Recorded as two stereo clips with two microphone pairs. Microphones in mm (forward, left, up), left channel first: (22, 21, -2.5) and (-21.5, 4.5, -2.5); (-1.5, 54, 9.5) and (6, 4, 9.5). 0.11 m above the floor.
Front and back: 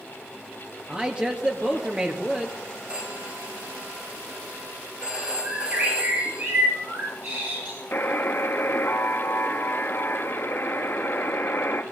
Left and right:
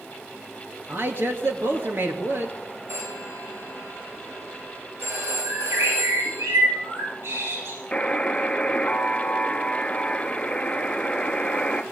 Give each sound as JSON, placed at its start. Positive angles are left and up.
{"t": 0.9, "sound": "a man speaking", "azimuth_deg": -95, "distance_m": 2.5}
{"t": 2.9, "sound": "a phone ringing", "azimuth_deg": -95, "distance_m": 6.0}
{"t": 5.4, "sound": "a bird", "azimuth_deg": -110, "distance_m": 9.5}
{"t": 7.9, "sound": "a buzzer", "azimuth_deg": 35, "distance_m": 1.1}